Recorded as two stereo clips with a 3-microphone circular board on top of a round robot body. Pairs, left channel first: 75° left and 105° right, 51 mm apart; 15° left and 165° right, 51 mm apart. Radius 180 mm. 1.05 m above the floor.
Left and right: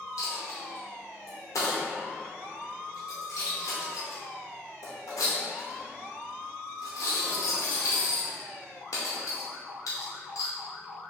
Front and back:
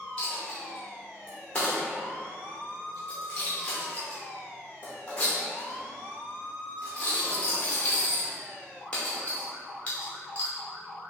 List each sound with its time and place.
0.2 s a dropped coin: 85° left, 0.6 m